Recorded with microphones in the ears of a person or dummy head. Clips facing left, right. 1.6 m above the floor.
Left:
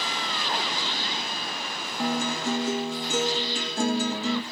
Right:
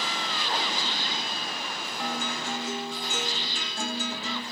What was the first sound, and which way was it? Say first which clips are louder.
A guitar: left 7 dB; 35° left (ahead or behind).